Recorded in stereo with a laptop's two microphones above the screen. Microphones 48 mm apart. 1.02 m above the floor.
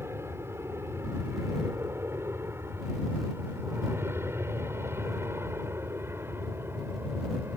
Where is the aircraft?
60° right (ahead or behind); by 7.6 s 55° right (ahead or behind).